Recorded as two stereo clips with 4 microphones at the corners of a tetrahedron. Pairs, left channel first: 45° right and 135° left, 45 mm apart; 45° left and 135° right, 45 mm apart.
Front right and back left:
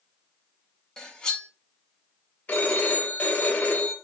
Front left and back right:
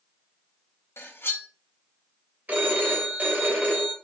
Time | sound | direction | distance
1.0 | cutlery clinking | 25° left | 0.7 m
2.5 | a phone ringing | 95° right | 1.0 m